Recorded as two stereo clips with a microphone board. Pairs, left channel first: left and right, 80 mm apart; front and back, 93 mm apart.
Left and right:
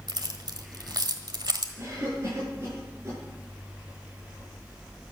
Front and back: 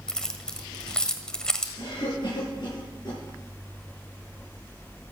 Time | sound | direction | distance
0.1 | keys jangling | 80° right | 1.4 m
1.8 | a cough | 35° right | 7 m